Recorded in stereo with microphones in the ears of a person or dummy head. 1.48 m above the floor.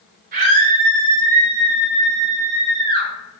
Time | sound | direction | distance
0.3 | a scream | 55° right (ahead or behind) | 6 m